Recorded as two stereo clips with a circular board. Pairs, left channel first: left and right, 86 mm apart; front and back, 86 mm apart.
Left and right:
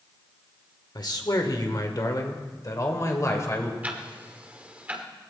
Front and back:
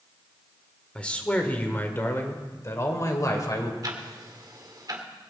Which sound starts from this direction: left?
A man speaking, at 0.9 s.